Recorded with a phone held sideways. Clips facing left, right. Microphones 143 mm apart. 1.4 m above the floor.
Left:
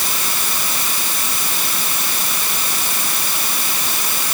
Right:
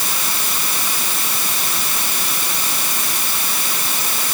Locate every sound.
Only background noise.